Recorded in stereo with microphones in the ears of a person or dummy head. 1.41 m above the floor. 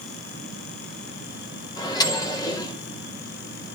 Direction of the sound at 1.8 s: 25° left (ahead or behind).